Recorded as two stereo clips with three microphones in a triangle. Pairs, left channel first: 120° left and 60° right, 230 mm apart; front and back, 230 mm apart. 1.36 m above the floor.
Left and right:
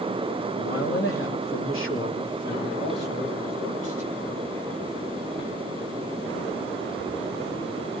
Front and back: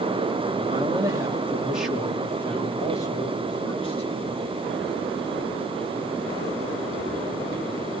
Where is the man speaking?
115° left, 2.5 m; by 4.7 s 60° left, 4.5 m.